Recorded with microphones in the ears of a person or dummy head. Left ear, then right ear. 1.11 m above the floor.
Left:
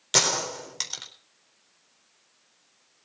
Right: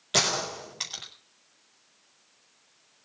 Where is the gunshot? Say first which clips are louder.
Left 2 dB; 75° left (ahead or behind), 4 m.